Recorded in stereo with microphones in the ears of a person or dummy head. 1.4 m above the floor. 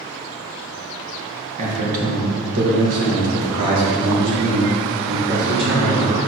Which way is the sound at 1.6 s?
40° right (ahead or behind).